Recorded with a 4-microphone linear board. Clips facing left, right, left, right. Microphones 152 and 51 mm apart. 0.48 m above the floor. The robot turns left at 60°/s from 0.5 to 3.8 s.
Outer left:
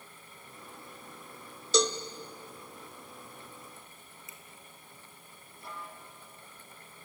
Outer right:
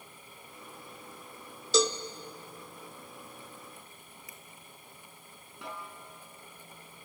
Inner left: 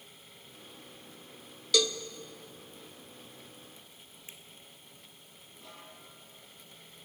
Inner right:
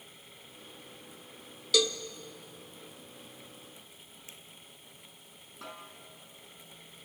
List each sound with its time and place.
1.7 s a cowbell: centre (ahead or behind), 0.8 m; by 2.0 s 10° right (ahead or behind), 0.8 m
4.3 s a finger snap: 25° left (ahead or behind), 2 m
5.6 s a snare drum: 80° right, 4.5 m